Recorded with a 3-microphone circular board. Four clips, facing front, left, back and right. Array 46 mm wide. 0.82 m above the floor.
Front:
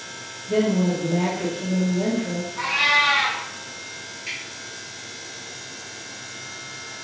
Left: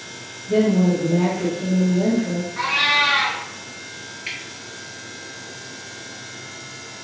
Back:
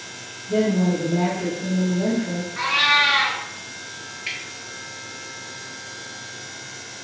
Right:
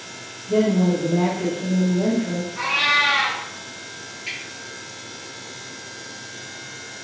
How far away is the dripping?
About 1.1 m.